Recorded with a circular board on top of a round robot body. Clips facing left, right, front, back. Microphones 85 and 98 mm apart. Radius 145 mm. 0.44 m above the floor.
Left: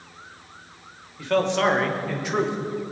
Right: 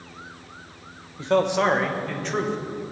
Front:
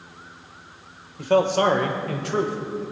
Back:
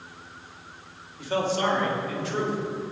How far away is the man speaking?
About 2 m.